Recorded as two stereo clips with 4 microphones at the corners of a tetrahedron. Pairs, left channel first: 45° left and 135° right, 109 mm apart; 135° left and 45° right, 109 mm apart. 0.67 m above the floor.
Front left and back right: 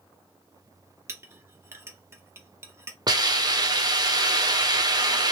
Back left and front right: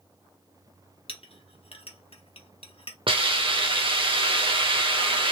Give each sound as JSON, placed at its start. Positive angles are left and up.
{"t": 1.1, "sound": "a clink", "azimuth_deg": 160, "distance_m": 0.8}
{"t": 3.1, "sound": "a hiss", "azimuth_deg": -85, "distance_m": 0.8}